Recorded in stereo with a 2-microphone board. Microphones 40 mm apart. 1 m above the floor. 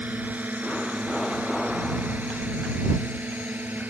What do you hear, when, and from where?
0.0 s a drone: 45° right (ahead or behind); by 3.9 s 50° right (ahead or behind)